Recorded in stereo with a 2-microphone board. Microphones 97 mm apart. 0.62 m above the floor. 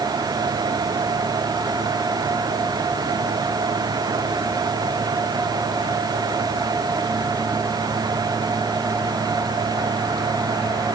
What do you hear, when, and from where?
Only background noise.